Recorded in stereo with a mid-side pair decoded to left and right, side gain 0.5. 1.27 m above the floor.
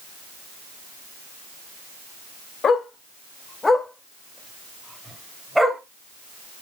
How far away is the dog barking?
About 2 m.